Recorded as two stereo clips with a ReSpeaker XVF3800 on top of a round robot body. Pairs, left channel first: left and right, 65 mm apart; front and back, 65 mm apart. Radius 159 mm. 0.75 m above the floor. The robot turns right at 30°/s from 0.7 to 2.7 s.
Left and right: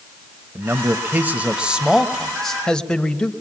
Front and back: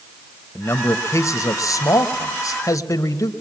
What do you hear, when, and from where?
0.6 s a man speaking: 45° right, 1.2 m; by 3.3 s 15° left, 1.2 m